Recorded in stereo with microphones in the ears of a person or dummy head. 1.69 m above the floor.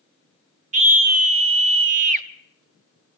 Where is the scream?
45° right (ahead or behind), 1.0 m.